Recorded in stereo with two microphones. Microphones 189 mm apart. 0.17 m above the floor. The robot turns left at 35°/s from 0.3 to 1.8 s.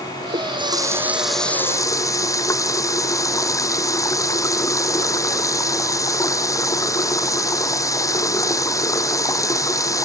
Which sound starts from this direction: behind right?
A running tap, at 0.3 s.